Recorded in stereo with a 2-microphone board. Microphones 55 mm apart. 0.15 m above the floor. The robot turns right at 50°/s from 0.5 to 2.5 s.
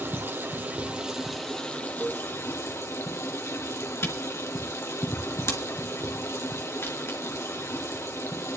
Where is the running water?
40° right, 2 m; by 8.6 s 60° left, 2 m.